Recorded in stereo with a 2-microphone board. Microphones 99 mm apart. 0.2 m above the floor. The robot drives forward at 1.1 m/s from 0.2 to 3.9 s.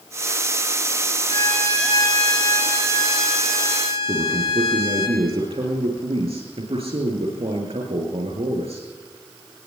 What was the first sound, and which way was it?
A violin, 80° left.